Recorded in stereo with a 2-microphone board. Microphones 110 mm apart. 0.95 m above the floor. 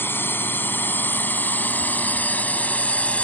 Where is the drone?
20° left (ahead or behind); by 3.2 s 10° left (ahead or behind).